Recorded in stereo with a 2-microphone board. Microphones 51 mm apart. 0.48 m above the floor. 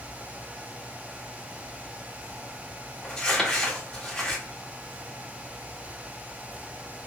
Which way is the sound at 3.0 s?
15° left (ahead or behind).